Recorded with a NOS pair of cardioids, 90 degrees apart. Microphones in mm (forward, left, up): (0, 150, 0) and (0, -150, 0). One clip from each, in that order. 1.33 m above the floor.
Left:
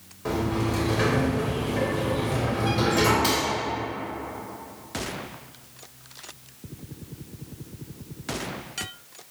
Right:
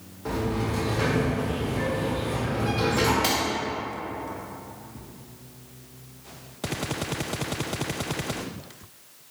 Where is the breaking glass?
40° right, 1.6 m.